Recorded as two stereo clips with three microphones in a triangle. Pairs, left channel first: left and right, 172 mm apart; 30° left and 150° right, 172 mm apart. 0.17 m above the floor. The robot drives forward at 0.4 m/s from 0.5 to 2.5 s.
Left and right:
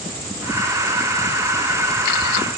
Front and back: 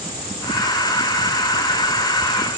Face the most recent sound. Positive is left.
No sound to turn to.